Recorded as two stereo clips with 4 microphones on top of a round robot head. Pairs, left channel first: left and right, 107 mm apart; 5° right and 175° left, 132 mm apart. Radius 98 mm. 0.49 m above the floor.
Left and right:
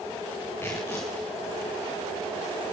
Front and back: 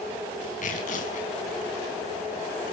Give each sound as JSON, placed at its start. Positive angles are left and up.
{"t": 0.6, "sound": "tearing paper", "azimuth_deg": 15, "distance_m": 5.0}